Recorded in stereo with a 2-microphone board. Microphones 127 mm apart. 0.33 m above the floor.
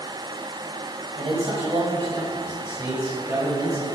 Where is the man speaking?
50° right (ahead or behind), 2 m; by 3.9 s 25° right (ahead or behind), 5 m.